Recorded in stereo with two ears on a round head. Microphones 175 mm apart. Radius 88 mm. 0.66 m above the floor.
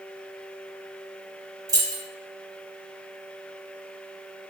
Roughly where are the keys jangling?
Centre.